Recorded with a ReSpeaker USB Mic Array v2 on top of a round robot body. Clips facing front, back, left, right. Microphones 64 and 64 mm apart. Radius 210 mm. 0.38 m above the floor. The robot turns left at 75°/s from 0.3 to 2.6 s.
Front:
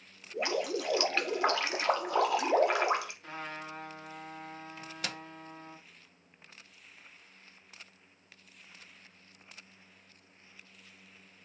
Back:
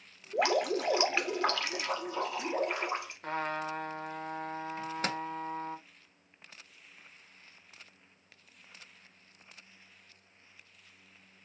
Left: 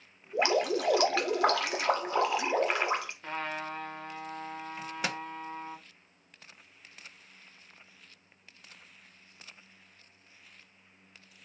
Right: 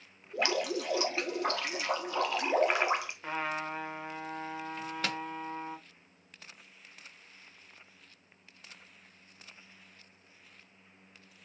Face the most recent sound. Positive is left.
turn(degrees=155)